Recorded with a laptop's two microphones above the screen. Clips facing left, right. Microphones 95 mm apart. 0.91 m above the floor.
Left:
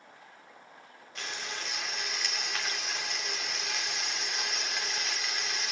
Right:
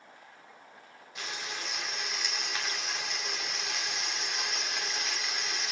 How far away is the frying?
About 2.5 m.